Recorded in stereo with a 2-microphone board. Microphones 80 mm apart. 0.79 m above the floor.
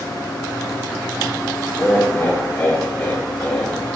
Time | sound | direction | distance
1.8 | laughter | 25° left (ahead or behind) | 3 m